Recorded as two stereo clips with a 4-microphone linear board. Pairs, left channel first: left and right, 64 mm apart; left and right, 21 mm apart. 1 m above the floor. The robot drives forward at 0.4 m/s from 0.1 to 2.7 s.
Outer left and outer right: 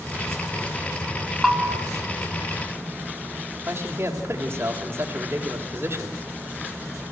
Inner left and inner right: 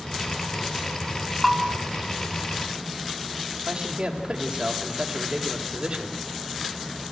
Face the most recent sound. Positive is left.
turn(degrees=-40)  # may be behind; listen again after turning